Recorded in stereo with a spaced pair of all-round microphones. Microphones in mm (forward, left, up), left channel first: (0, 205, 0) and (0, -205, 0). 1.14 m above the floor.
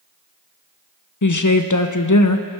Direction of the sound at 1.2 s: 45° left (ahead or behind).